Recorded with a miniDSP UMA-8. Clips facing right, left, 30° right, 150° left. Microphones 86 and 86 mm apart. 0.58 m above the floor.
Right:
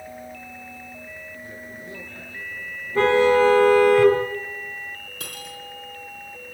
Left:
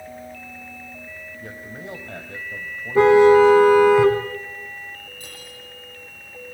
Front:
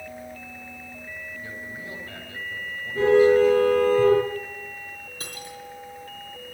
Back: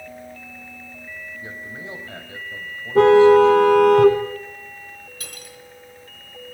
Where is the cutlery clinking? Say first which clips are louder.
Right 3 dB, front 3 dB; 90° right, 4 m.